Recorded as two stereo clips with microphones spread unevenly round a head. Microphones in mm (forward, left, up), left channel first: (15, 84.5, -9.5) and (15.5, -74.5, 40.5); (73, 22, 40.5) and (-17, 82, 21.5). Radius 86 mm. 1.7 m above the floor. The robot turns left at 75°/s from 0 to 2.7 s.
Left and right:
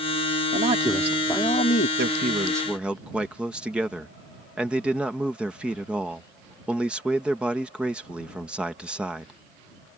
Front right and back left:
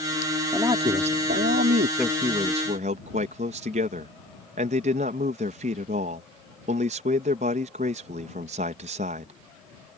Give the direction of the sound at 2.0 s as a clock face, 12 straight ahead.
4 o'clock.